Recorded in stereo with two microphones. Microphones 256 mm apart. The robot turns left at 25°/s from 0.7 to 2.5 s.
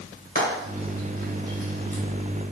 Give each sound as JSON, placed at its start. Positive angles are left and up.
{"t": 0.3, "sound": "frying", "side_deg": 35, "distance_m": 1.3}